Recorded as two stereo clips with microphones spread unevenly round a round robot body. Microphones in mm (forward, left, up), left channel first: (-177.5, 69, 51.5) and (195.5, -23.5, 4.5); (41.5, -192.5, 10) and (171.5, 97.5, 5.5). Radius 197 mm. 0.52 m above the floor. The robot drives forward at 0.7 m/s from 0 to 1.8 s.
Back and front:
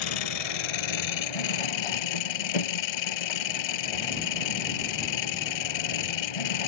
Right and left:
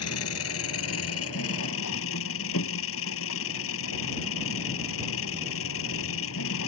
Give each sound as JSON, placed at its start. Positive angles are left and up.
{"t": 0.0, "sound": "an engine running", "azimuth_deg": -170}